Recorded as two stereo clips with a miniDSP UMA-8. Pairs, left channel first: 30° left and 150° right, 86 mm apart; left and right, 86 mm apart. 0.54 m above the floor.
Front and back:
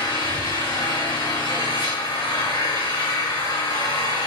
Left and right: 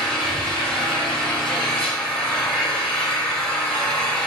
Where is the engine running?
10° left, 5 m.